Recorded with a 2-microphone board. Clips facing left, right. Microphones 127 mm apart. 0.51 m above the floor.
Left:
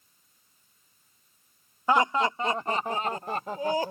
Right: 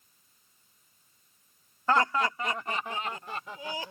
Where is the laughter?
15° left (ahead or behind); by 3.9 s 50° left (ahead or behind).